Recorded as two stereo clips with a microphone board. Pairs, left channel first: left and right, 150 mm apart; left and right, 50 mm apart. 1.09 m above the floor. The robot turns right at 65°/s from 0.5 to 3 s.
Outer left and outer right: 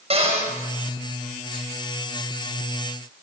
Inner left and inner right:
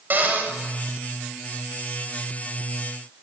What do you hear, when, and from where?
0.1 s a cupboard door: 45° right (ahead or behind), 6.5 m; by 0.5 s 40° right (ahead or behind), 6.5 m